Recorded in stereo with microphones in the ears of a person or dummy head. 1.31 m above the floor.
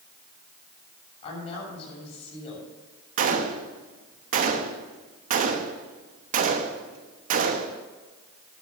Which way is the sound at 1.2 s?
35° left (ahead or behind).